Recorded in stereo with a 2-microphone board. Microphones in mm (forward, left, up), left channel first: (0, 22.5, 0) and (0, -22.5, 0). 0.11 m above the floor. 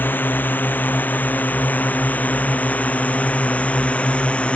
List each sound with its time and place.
0.0 s a drone: 45° left (ahead or behind); by 4.6 s 30° left (ahead or behind)